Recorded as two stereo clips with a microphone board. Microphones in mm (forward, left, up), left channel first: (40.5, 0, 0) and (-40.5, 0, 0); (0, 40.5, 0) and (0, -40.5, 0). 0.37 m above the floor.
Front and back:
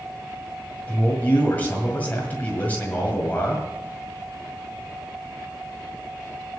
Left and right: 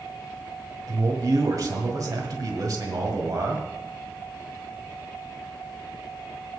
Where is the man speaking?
65° right, 1.8 m.